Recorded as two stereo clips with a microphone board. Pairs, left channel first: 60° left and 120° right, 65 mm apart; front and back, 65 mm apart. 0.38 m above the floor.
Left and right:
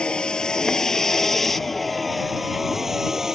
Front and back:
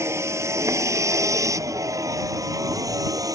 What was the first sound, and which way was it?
A vehicle, 135° left.